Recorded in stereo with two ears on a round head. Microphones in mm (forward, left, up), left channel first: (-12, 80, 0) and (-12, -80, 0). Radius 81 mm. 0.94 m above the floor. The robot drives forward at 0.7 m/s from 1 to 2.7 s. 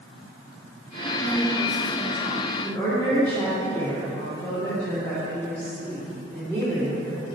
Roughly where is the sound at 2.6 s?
Centre.